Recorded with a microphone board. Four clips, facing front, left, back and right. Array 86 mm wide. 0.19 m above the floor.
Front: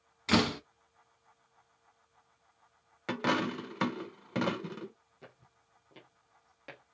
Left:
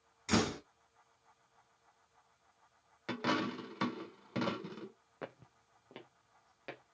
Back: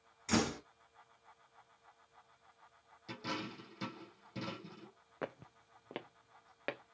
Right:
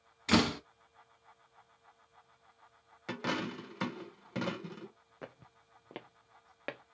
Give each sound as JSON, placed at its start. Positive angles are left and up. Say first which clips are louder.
{"t": 0.3, "sound": "a door slam", "louder": "right 4 dB, front 6 dB", "azimuth_deg": -35, "distance_m": 0.9}
{"t": 3.1, "sound": "a dropped coin", "louder": "left 1 dB, front 12 dB", "azimuth_deg": 5, "distance_m": 0.8}
{"t": 5.2, "sound": "footsteps", "louder": "left 2 dB, back 12 dB", "azimuth_deg": 170, "distance_m": 0.6}